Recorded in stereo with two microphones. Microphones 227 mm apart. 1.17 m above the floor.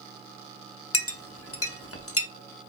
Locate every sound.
0.9 s a clink: 80° left, 0.5 m